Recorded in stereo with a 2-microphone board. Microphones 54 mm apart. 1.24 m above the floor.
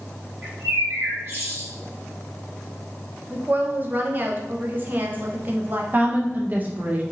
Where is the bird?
40° right (ahead or behind), 1.8 m.